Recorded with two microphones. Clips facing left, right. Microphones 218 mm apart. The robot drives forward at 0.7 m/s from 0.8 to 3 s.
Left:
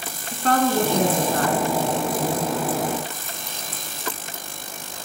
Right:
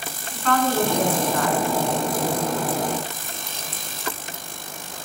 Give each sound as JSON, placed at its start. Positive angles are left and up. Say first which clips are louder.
{"t": 0.3, "sound": "a woman speaking", "louder": "left 2 dB", "side_deg": 40, "distance_m": 2.5}